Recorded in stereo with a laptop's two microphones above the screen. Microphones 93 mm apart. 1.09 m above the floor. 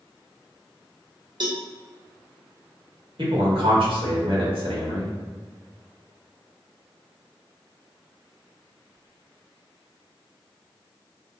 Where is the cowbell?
55° right (ahead or behind), 0.6 m.